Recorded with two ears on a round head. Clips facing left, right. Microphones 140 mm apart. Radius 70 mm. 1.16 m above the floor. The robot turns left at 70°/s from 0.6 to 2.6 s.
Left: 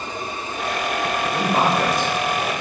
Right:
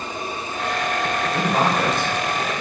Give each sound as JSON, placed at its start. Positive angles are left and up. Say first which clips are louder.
{"t": 1.3, "sound": "a man speaking", "louder": "left 1 dB", "side_deg": 0, "distance_m": 0.8}